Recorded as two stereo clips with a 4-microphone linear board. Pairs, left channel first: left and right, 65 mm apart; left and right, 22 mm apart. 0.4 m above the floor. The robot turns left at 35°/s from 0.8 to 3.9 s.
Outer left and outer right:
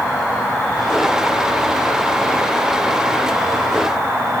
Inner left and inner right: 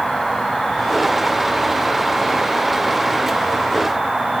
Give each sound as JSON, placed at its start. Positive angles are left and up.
{"t": 0.0, "sound": "an insect", "azimuth_deg": -10, "distance_m": 2.5}